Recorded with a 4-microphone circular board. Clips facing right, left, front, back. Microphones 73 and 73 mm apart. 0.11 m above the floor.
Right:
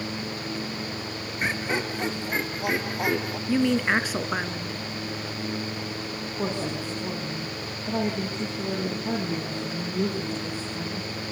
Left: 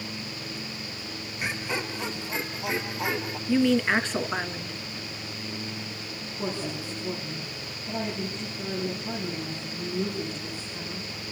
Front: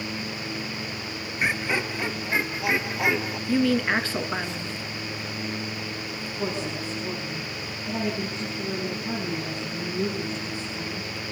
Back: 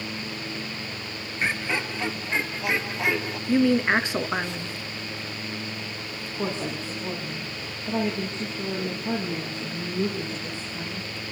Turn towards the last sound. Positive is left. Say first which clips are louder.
# right 3 dB, back 1 dB
turn(degrees=-120)